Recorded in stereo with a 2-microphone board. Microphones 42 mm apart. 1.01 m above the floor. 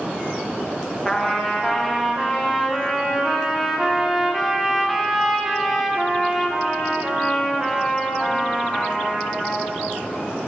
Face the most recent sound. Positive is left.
turn(degrees=0)  # may be behind; listen again after turning